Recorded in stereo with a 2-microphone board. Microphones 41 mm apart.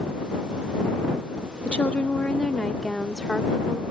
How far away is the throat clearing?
I don't hear throat clearing.